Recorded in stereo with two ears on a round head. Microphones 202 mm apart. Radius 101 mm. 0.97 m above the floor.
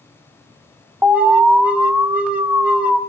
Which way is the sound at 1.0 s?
5° right (ahead or behind).